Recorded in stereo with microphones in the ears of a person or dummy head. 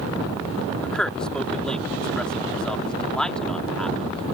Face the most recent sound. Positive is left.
turn(degrees=0)  # may be behind; listen again after turning